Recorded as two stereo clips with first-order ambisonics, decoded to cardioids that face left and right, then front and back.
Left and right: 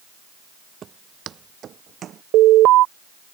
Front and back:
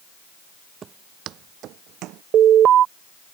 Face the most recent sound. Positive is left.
turn(degrees=-130)